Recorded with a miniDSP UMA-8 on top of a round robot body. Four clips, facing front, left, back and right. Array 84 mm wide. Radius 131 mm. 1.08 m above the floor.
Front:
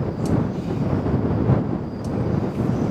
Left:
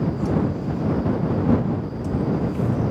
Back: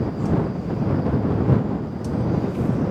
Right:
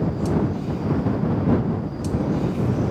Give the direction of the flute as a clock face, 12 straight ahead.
No flute in this recording.